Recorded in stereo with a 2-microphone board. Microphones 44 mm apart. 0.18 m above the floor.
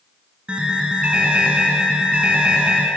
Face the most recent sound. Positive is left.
turn(degrees=-30)  # may be behind; listen again after turning